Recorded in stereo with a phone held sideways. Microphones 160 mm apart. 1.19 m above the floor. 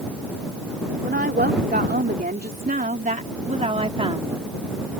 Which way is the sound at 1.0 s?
90° right.